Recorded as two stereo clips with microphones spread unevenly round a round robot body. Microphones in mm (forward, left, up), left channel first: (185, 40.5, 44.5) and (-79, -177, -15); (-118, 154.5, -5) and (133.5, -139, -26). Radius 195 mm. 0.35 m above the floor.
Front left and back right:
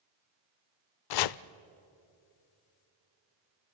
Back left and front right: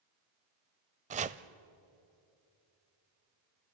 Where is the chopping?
20° left, 0.5 m.